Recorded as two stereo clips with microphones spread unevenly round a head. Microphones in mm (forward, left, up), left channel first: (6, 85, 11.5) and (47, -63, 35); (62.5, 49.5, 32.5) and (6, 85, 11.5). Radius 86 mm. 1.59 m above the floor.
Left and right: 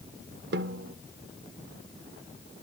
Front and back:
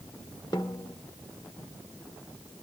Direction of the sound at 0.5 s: 105° right.